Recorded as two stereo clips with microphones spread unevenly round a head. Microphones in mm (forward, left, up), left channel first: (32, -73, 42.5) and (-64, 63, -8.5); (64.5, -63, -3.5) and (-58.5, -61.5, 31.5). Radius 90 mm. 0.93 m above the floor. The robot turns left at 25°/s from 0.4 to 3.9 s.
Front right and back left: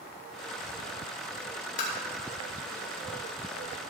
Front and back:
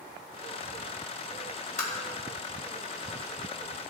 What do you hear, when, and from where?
1.8 s tapping: 5° right, 3.5 m